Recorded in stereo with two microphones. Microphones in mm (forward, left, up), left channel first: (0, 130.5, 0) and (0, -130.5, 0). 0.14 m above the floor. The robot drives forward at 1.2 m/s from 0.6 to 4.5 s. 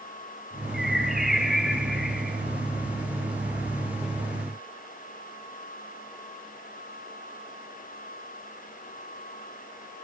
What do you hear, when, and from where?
0.7 s a bird: centre (ahead or behind), 1.2 m